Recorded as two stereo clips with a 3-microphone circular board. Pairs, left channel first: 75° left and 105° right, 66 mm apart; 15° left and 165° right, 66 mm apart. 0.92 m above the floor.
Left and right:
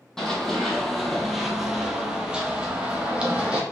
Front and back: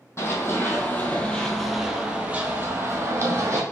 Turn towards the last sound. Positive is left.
turn(degrees=-175)